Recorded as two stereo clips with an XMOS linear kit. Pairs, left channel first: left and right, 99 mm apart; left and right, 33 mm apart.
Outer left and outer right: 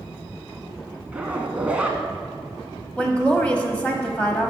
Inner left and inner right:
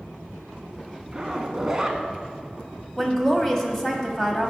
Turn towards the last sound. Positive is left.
turn(degrees=15)  # may be behind; listen again after turning